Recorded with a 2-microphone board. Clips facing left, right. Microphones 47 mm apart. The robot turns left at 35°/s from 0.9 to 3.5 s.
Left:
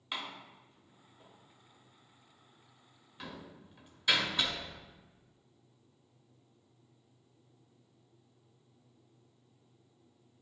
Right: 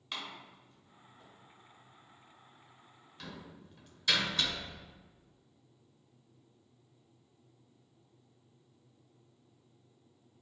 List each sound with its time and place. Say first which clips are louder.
0.1 s a door slam: left 2 dB; 15° left (ahead or behind), 0.6 m